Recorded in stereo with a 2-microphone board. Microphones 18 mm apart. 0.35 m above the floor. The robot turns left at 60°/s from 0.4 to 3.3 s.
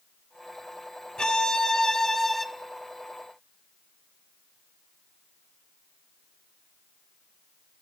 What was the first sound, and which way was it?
A violin, 80° left.